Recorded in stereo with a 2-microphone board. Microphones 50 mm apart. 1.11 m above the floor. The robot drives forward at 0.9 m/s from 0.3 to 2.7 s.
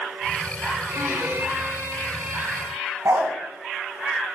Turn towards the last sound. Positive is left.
turn(degrees=-70)  # may be behind; listen again after turning